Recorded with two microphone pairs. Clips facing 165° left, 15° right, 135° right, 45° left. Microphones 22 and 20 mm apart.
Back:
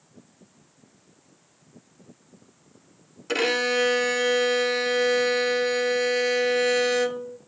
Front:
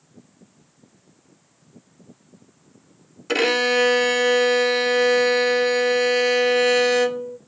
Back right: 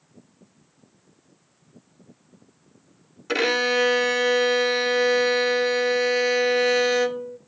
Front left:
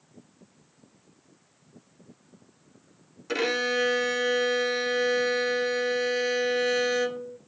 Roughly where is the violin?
Right.